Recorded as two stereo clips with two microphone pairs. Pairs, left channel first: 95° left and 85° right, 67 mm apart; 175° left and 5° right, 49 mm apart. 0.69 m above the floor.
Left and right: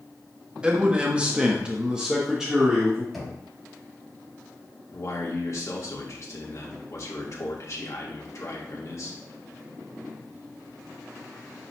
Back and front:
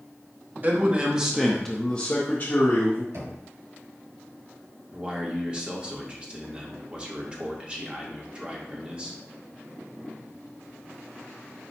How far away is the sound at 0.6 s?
About 1.0 m.